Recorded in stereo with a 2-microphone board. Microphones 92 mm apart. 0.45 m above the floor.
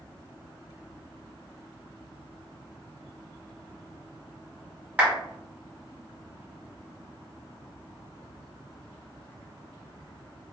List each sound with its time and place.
5.0 s a clap: 15° right (ahead or behind), 1.3 m